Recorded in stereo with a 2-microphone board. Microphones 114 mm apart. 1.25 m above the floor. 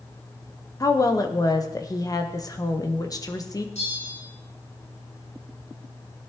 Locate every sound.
0.8 s a woman speaking: 30° left (ahead or behind), 1.2 m
3.8 s a bell: 80° left, 6 m